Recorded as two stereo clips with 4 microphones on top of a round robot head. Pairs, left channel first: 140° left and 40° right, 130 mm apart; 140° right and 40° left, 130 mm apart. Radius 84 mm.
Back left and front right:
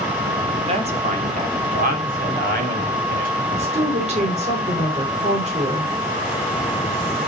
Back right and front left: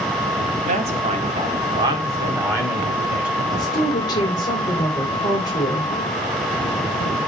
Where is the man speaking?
5° left, 2.5 m; by 3.4 s 40° right, 4 m.